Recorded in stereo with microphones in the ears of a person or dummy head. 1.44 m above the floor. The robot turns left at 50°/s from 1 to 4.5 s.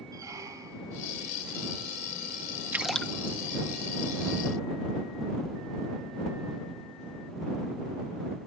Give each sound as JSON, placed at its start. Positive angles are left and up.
{"t": 0.1, "sound": "a squeak", "side_deg": -20}
{"t": 2.7, "sound": "a splash", "side_deg": -10}